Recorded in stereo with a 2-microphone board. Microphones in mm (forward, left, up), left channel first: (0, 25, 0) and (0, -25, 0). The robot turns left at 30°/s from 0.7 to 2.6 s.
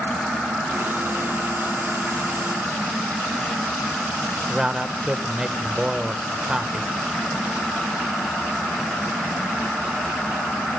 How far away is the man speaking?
About 1.0 m.